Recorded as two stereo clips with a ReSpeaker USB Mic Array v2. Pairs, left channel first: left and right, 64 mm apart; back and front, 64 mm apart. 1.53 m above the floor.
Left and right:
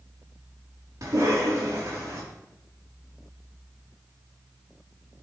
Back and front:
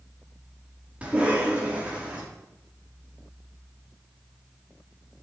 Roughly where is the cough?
Right.